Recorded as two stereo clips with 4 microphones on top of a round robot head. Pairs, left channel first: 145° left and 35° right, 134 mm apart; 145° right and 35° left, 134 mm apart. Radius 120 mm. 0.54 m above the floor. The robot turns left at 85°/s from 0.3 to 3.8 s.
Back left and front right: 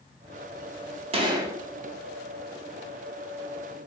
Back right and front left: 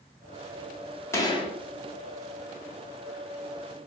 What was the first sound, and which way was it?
A gunshot, 75° right.